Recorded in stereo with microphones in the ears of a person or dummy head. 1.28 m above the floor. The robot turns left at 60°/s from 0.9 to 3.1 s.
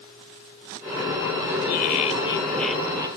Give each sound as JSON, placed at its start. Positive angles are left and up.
{"t": 1.7, "sound": "laughter", "azimuth_deg": 60}